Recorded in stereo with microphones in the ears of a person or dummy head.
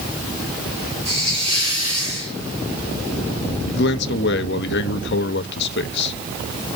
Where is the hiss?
30° right (ahead or behind), 3.5 m.